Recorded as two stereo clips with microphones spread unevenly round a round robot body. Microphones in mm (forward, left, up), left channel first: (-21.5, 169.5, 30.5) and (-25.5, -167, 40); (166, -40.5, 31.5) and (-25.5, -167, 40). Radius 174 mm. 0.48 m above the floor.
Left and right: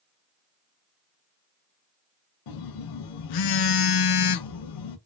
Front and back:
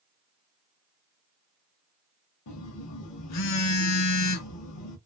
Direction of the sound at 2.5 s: 55° left.